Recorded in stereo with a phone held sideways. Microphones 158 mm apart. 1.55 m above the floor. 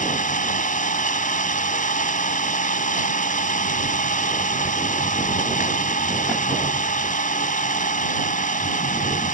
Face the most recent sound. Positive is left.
turn(degrees=55)  # may be behind; listen again after turning